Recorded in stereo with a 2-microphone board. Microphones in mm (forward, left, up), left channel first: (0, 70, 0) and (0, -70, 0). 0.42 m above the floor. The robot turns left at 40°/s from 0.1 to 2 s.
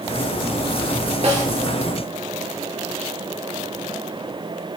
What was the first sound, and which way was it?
A snare drum, 50° right (ahead or behind).